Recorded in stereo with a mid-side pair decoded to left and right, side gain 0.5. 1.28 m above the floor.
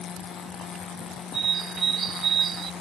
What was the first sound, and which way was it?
A bird, 45° right.